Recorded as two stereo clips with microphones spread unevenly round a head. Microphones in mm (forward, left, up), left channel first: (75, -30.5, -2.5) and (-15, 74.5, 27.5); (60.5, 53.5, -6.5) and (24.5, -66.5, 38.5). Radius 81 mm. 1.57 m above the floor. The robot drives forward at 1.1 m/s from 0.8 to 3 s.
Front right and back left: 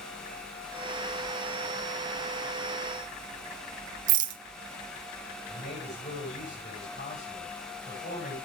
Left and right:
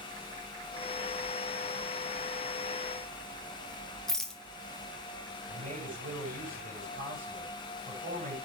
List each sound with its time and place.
4.1 s a rattle: 165° left, 0.9 m
5.5 s a man speaking: 100° right, 9.5 m